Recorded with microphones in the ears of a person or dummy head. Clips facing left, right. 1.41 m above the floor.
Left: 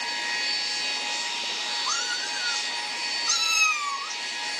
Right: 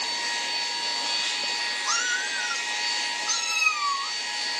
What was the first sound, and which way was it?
A cat meowing, 15° right (ahead or behind).